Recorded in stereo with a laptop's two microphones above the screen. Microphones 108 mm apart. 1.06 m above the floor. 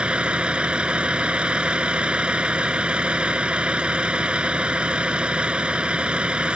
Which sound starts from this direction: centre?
A vehicle, at 0.0 s.